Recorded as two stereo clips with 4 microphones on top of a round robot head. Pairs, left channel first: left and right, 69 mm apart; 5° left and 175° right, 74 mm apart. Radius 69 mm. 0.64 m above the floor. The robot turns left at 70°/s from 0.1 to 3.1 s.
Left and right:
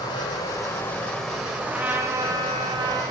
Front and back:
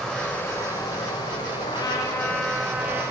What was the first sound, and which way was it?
Running water, 90° left.